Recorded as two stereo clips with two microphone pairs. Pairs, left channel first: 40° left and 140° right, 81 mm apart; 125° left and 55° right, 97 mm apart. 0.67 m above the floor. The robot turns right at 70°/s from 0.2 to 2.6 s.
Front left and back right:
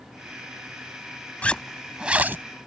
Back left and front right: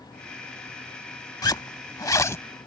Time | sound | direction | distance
1.4 | a zipper | 105° left | ?